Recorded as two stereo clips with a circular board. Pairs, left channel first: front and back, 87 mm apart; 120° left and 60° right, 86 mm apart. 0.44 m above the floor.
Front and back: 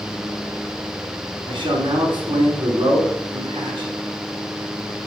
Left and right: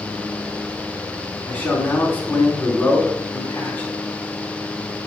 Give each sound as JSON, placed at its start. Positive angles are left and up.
{"t": 1.5, "sound": "a man speaking", "azimuth_deg": -170, "distance_m": 4.5}